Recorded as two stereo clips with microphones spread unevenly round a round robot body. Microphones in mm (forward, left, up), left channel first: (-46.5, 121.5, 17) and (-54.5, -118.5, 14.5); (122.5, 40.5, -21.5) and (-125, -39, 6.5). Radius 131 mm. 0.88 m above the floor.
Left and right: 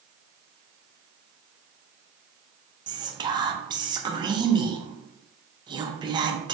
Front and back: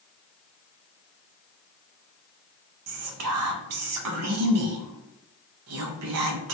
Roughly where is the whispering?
Behind.